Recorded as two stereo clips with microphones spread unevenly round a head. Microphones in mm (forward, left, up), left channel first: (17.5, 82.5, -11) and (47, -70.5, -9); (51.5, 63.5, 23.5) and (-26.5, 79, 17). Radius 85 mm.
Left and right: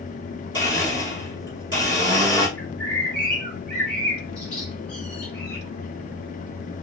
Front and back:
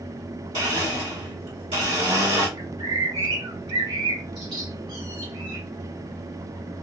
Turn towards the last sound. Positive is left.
turn(degrees=-175)